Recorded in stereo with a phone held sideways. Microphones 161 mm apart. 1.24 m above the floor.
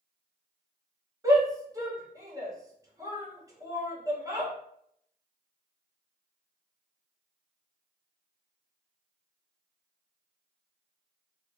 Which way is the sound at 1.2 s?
20° right (ahead or behind).